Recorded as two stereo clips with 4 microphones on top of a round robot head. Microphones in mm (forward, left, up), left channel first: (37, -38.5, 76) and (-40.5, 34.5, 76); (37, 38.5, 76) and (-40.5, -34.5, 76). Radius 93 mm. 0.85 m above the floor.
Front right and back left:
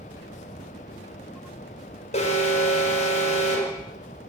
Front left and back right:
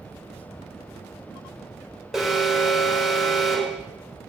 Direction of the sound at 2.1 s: 50° right.